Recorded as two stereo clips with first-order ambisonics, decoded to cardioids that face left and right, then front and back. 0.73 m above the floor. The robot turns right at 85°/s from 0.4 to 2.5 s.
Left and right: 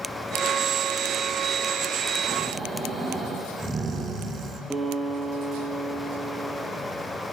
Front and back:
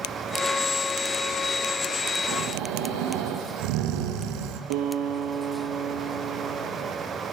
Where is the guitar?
175° right, 5.5 m.